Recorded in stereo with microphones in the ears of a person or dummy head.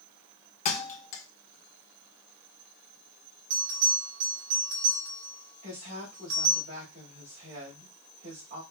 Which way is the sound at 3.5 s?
85° right.